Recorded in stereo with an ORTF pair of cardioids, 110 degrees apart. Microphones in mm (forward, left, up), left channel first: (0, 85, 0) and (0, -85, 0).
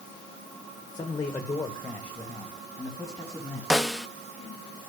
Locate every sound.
0.9 s a man speaking: 20° left, 1.0 m; by 3.6 s straight ahead, 3 m
3.7 s a snare drum: straight ahead, 0.7 m